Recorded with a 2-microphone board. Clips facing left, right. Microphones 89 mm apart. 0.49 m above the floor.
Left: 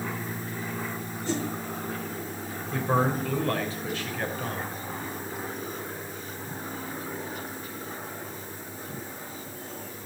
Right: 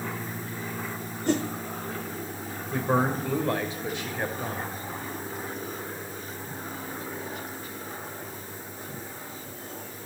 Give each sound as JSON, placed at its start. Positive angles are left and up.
{"t": 1.3, "sound": "a whoosh", "side_deg": -55, "distance_m": 1.2}
{"t": 2.7, "sound": "a man speaking", "side_deg": -15, "distance_m": 2.5}